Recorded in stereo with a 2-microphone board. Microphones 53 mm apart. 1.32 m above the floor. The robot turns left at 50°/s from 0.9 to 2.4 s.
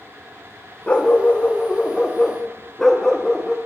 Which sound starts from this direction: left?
A dog barking, at 0.9 s.